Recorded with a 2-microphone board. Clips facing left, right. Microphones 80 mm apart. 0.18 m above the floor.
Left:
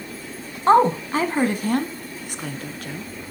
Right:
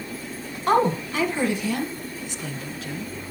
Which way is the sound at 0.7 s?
30° left (ahead or behind).